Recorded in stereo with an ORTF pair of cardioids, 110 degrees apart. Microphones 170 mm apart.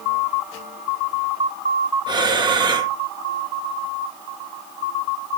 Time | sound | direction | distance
2.1 | breathing | 25° right | 2 m